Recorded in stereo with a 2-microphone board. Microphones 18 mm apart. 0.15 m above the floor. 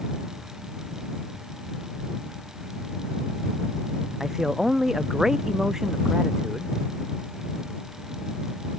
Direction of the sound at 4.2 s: 25° right (ahead or behind).